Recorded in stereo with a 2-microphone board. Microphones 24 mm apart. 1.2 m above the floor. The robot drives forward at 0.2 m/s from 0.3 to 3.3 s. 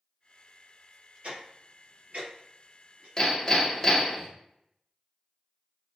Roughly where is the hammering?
Left.